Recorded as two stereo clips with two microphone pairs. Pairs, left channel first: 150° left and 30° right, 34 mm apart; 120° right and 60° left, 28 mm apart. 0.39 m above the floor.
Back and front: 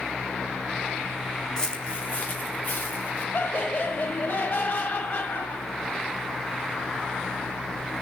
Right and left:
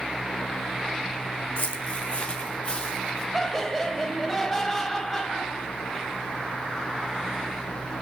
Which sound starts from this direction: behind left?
Laughter, at 3.3 s.